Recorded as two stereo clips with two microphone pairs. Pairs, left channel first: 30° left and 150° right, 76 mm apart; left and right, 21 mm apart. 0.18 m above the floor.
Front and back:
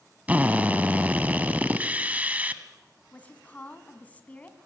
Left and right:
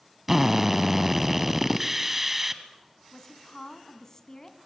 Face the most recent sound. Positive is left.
turn(degrees=75)